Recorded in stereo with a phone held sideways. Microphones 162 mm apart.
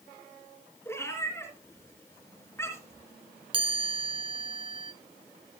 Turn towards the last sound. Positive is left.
turn(degrees=-30)  # may be behind; listen again after turning